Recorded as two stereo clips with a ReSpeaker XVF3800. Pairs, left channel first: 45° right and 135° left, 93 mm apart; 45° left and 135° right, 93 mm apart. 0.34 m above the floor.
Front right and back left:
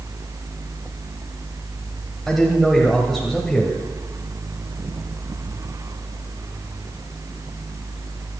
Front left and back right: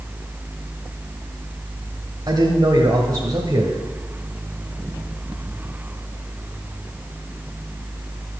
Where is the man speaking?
130° right, 1.3 m.